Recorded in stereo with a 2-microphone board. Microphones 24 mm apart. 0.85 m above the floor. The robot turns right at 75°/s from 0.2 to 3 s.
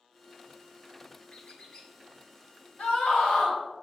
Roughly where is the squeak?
Left.